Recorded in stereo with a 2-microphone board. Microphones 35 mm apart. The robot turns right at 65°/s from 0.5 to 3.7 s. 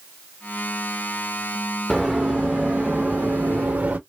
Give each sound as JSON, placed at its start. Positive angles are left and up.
{"t": 1.9, "sound": "running footsteps", "side_deg": -5, "distance_m": 1.1}